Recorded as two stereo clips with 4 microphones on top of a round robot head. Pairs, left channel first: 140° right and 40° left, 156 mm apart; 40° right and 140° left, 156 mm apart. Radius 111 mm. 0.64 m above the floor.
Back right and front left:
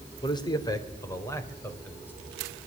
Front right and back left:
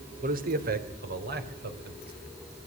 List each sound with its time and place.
0.2 s a man speaking: 160° left, 3 m; by 2.1 s 145° left, 5 m